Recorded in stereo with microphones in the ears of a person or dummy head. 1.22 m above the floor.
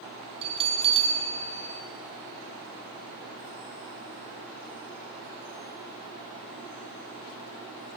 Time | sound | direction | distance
0.4 | a bell | 30° right (ahead or behind) | 0.6 m